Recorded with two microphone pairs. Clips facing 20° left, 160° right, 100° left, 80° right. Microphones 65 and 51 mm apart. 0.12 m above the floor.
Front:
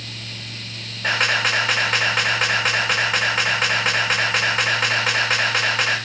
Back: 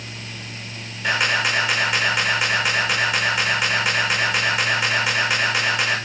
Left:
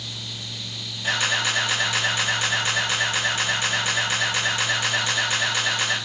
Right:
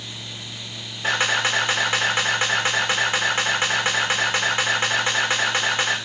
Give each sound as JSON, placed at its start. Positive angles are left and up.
{"t": 1.0, "sound": "a camera shutter", "azimuth_deg": -30, "distance_m": 6.5}